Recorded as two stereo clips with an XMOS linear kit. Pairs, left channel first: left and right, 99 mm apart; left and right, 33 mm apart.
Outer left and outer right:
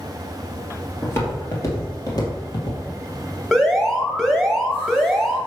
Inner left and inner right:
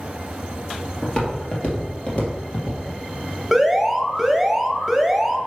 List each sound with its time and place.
1.0 s footsteps: 25° left (ahead or behind), 2 m; by 2.8 s 45° left (ahead or behind), 2.5 m
3.5 s an alarm: centre (ahead or behind), 1.0 m